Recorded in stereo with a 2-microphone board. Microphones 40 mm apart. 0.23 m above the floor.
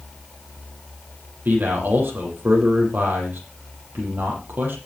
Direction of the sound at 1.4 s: 55° right (ahead or behind).